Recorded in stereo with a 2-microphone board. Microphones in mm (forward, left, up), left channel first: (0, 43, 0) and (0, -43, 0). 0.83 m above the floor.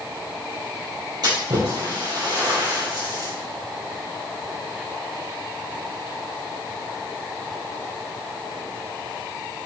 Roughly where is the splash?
Right.